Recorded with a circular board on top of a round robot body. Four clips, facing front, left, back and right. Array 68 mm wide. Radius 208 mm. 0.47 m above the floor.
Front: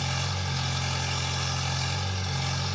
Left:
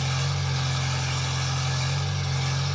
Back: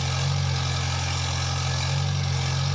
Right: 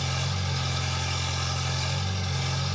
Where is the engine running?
165° left, 2 m.